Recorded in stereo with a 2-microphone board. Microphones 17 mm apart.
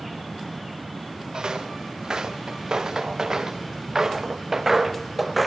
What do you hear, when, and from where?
1.3 s footsteps: 60° right (ahead or behind), 3.5 m; by 5.5 s 5° right (ahead or behind), 1.3 m